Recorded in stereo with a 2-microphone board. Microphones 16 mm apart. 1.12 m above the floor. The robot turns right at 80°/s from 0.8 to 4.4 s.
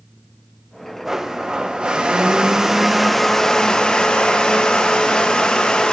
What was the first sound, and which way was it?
A blender, 160° right.